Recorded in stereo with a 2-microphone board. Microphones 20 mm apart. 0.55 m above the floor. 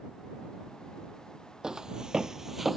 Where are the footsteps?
35° right (ahead or behind); by 2.8 s 10° right (ahead or behind).